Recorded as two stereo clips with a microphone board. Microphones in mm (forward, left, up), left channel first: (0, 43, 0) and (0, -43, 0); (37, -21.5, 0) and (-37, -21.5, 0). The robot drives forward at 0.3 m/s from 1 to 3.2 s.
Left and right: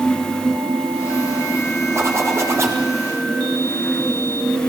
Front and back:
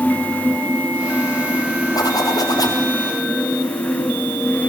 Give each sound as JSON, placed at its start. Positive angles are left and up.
{"t": 1.9, "sound": "a zipper", "azimuth_deg": -30, "distance_m": 6.0}